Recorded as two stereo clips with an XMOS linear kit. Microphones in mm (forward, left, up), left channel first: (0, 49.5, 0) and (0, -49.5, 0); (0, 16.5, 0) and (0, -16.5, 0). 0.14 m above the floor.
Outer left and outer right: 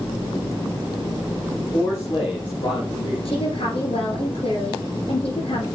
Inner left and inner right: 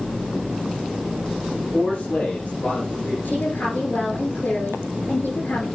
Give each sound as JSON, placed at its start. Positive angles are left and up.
{"t": 1.7, "sound": "a man speaking", "side_deg": 60, "distance_m": 3.5}
{"t": 3.2, "sound": "a woman speaking", "side_deg": 70, "distance_m": 7.0}